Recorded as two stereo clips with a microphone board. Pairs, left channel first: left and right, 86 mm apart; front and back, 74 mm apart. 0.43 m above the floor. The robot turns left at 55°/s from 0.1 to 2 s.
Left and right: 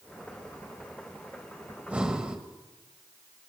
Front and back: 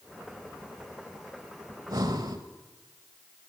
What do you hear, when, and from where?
1.7 s breathing: 150° right, 1.1 m; by 2.4 s 170° right, 1.1 m